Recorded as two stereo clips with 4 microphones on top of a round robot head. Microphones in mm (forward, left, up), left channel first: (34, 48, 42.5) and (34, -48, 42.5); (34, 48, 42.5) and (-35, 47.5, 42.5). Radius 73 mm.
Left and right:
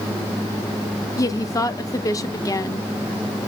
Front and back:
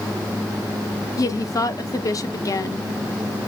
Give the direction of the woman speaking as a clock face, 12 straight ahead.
11 o'clock.